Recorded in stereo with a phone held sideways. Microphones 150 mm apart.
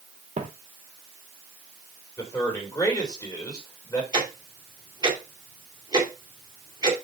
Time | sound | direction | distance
0.4 | footsteps | 50° right (ahead or behind) | 1.3 m
2.2 | a man speaking | 25° left (ahead or behind) | 4 m
4.1 | ticking | 25° right (ahead or behind) | 2.5 m